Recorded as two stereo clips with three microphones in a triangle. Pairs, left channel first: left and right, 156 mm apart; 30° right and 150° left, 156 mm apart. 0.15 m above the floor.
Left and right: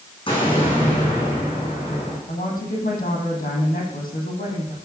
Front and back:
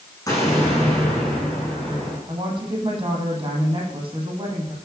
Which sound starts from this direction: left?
A woman speaking, at 2.3 s.